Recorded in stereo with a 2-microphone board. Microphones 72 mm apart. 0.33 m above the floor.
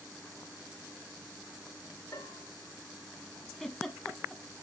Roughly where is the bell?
Left.